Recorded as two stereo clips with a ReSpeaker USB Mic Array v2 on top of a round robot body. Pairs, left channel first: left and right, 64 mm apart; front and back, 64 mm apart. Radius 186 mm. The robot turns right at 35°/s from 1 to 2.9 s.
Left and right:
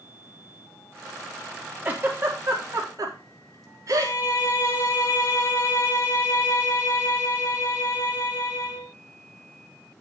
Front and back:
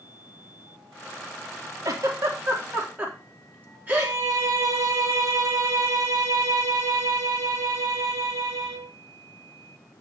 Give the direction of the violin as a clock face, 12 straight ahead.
7 o'clock.